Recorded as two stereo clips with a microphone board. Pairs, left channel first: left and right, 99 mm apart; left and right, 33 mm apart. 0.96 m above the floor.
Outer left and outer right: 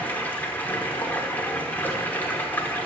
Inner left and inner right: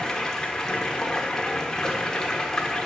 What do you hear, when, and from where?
0.0 s running water: 20° left (ahead or behind), 1.4 m